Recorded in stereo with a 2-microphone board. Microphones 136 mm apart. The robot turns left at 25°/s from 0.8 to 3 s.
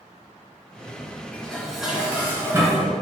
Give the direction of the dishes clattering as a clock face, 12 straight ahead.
12 o'clock.